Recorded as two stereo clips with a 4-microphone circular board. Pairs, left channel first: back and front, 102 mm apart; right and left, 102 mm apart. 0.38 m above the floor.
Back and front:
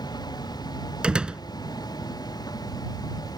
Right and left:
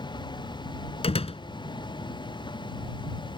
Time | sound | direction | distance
0.0 | a vehicle | 130° right | ?
1.0 | a door slam | 80° right | ?